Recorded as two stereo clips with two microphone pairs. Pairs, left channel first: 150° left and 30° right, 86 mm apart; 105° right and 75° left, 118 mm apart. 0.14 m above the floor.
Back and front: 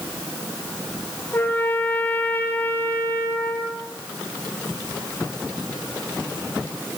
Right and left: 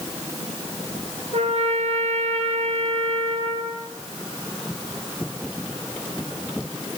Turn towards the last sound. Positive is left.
turn(degrees=85)